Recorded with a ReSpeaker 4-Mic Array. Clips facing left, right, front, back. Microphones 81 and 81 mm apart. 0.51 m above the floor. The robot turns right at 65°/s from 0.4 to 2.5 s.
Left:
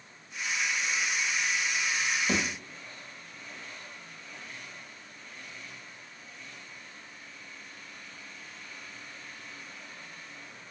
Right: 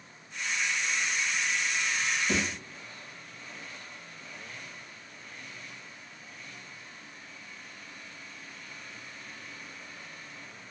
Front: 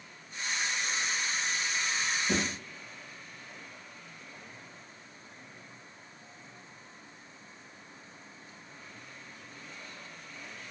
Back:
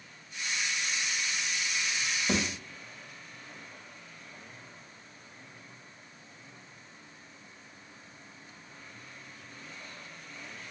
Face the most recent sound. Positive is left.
turn(degrees=155)